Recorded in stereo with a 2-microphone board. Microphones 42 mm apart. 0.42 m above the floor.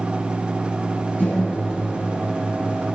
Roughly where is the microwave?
Left.